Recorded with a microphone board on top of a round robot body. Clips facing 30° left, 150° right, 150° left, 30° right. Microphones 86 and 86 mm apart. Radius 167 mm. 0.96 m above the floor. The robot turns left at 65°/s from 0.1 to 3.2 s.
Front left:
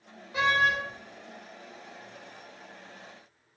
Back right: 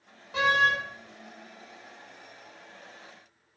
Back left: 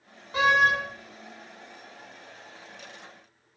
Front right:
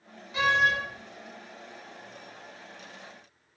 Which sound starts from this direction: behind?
A door slam, at 0.3 s.